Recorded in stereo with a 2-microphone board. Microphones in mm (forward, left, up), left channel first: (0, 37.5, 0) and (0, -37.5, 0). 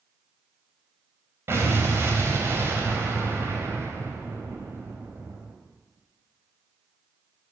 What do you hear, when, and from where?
1.5 s an explosion: 35° right (ahead or behind), 3.5 m